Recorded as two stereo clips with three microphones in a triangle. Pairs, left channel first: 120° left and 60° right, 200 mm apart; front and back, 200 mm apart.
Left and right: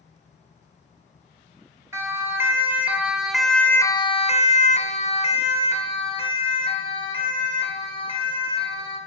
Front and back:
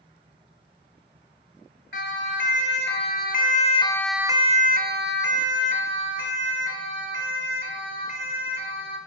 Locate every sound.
1.9 s a siren: 15° left, 3 m; by 9.0 s 175° right, 6.5 m